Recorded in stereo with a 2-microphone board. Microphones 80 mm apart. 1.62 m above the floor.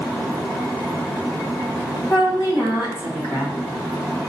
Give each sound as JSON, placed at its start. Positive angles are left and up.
{"t": 2.1, "sound": "a woman speaking", "side_deg": 55, "distance_m": 1.5}